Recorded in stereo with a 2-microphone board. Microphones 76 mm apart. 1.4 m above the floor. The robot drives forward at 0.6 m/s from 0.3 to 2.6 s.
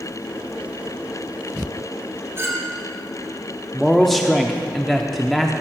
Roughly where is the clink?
Right.